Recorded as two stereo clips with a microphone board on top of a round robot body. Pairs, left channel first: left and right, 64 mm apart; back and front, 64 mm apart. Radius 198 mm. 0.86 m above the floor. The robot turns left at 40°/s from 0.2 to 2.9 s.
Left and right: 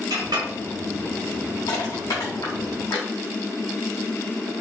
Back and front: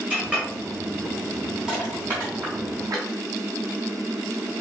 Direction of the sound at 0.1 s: 70° right.